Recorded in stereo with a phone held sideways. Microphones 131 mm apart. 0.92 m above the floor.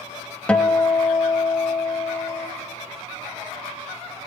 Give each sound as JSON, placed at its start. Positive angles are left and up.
{"t": 0.5, "sound": "a guitar", "side_deg": 10, "distance_m": 0.9}